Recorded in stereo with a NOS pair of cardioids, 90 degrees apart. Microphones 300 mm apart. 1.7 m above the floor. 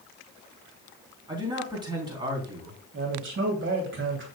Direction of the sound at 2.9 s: 40° right.